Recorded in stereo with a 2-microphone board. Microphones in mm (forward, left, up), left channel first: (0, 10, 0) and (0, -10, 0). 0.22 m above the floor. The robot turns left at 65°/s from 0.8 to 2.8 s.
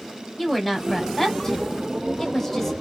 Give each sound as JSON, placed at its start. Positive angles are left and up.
{"t": 0.4, "sound": "a woman speaking", "side_deg": 5, "distance_m": 1.0}